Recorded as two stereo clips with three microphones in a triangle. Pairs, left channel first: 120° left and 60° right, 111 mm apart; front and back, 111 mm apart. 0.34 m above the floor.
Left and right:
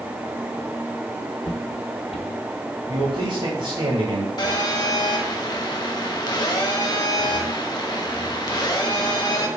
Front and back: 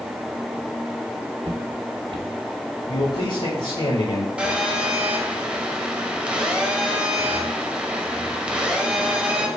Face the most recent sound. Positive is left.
turn(degrees=105)